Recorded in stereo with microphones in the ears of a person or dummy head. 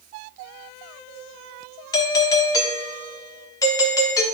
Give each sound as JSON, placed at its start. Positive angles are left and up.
{"t": 1.9, "sound": "a doorbell", "side_deg": 20, "distance_m": 0.9}